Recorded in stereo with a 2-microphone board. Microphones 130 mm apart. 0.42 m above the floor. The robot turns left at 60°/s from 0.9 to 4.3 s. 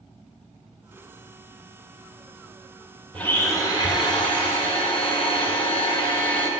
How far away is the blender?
About 1.9 m.